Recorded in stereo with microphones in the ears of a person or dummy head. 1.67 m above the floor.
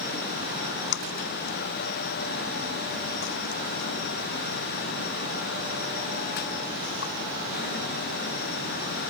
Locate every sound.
0.5 s a splash: 60° left (ahead or behind)